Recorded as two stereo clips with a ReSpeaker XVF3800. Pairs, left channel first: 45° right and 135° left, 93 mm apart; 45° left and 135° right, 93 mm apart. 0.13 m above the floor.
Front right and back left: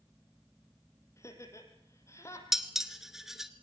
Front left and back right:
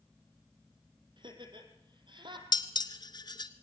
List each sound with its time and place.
1.2 s laughter: 105° right, 4 m
2.5 s dishes clattering: 50° left, 1.2 m